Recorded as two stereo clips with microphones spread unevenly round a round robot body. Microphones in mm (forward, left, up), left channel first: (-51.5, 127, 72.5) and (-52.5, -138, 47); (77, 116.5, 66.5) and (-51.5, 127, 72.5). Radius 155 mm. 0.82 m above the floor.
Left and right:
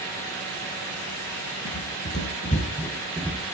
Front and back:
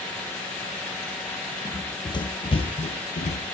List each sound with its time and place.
1.6 s running footsteps: 55° left, 1.5 m; by 3.4 s 5° left, 1.2 m